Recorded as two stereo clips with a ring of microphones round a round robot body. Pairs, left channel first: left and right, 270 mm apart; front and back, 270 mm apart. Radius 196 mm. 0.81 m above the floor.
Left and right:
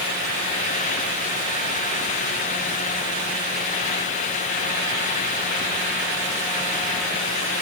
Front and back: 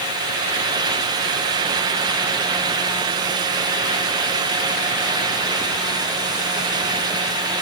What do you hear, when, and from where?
Only background noise.